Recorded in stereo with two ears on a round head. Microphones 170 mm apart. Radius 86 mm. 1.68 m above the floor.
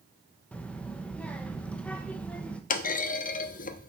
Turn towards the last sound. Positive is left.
turn(degrees=45)  # may be behind; listen again after turning